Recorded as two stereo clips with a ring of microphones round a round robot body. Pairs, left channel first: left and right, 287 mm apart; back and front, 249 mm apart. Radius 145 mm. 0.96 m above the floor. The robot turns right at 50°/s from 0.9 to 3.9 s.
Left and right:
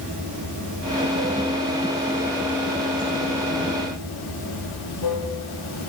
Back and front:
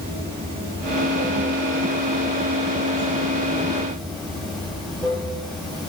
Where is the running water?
60° right, 8.5 m; by 5.9 s 90° left, 8.5 m.